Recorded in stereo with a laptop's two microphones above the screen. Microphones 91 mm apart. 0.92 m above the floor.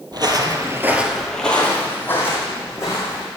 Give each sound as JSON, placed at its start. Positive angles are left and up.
{"t": 0.1, "sound": "footsteps", "side_deg": -50, "distance_m": 1.5}